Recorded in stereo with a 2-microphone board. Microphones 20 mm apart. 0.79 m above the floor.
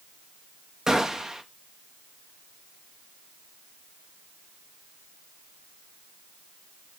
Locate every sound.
0.9 s a gunshot: 25° right (ahead or behind), 1.0 m